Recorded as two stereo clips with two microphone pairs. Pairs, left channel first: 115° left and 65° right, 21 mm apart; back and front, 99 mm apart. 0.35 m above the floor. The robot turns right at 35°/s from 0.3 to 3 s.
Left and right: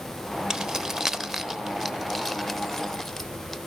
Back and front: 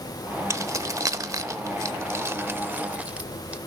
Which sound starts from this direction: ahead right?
Keys jangling, at 0.5 s.